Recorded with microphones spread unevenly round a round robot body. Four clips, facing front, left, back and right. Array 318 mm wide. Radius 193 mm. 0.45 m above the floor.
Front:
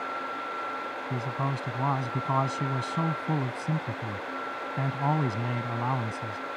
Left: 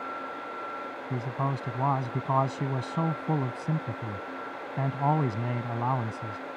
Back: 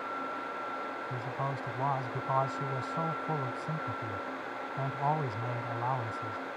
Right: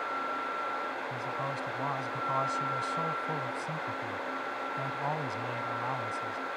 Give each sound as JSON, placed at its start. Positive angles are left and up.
{"t": 1.1, "sound": "a man speaking", "azimuth_deg": 55}